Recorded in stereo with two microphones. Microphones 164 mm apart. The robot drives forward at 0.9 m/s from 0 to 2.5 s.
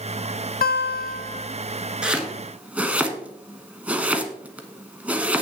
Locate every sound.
0.6 s a guitar: 70° left (ahead or behind), 0.5 m; by 1.5 s 40° left (ahead or behind), 0.7 m
2.0 s chopping: 5° right (ahead or behind), 1.3 m; by 5.4 s 10° right (ahead or behind), 0.9 m